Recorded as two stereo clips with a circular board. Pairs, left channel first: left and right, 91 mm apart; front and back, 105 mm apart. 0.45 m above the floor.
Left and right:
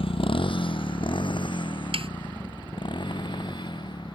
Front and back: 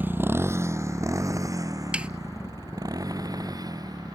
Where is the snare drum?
100° right.